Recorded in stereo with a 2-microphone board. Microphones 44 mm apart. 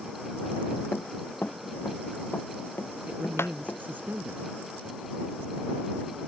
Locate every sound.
0.9 s running footsteps: 40° left (ahead or behind); by 3.8 s 65° left (ahead or behind)
3.1 s a man speaking: 45° right (ahead or behind)